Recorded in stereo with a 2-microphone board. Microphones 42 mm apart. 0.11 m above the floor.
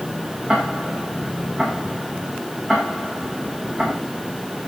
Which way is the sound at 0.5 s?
10° right (ahead or behind).